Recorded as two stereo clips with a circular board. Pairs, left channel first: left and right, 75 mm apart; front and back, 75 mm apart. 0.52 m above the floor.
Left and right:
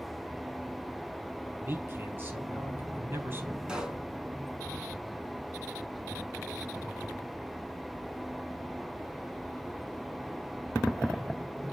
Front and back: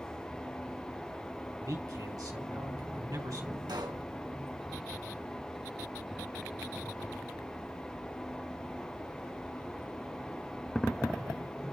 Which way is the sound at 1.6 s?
150° right.